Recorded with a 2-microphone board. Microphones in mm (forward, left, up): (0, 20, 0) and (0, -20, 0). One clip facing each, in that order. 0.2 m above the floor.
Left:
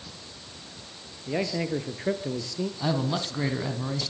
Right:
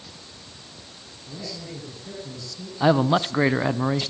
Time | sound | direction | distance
1.3 | a man speaking | 70° left (ahead or behind) | 4 m
2.8 | a man speaking | 40° right (ahead or behind) | 1.3 m